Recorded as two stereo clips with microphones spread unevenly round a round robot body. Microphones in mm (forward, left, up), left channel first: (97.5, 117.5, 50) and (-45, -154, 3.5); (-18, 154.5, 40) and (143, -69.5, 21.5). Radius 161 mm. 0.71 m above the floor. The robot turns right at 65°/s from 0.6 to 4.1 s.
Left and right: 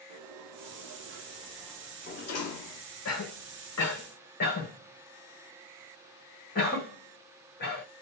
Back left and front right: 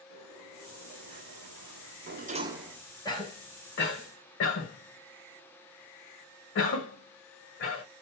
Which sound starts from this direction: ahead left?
A cough, at 3.0 s.